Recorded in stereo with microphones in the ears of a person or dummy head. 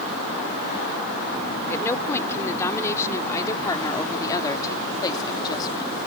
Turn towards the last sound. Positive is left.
turn(degrees=30)  # may be behind; listen again after turning